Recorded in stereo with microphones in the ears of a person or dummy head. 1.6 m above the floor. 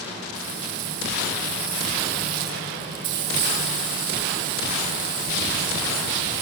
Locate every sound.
0.3 s frying: 55° right (ahead or behind), 1.5 m